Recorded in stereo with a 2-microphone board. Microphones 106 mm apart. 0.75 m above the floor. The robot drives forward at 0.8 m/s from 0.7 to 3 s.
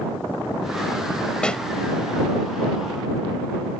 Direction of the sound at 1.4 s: 10° left (ahead or behind).